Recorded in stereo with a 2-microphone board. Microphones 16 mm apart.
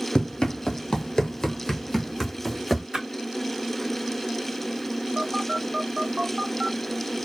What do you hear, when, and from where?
0.1 s running footsteps: 55° left (ahead or behind), 0.7 m; by 2.8 s centre (ahead or behind), 1.1 m
2.9 s a splash: 35° right (ahead or behind), 1.6 m
5.2 s a phone buzzing: 40° right (ahead or behind), 0.8 m